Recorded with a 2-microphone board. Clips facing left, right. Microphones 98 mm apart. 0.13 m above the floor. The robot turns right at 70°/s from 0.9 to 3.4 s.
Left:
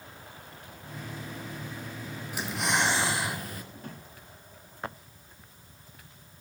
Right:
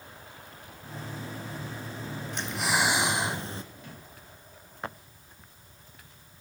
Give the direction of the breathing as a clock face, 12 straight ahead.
7 o'clock.